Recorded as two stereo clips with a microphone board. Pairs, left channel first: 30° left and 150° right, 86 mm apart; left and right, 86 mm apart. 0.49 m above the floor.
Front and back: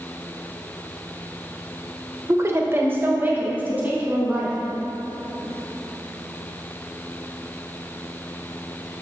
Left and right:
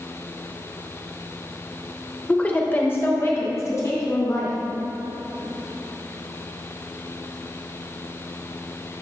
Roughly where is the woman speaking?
Behind.